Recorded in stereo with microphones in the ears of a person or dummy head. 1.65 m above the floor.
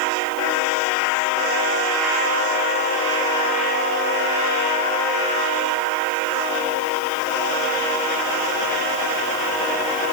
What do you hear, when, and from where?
Only background noise.